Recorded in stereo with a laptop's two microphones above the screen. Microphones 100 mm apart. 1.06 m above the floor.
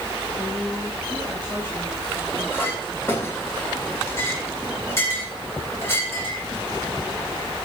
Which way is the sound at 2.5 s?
25° left (ahead or behind).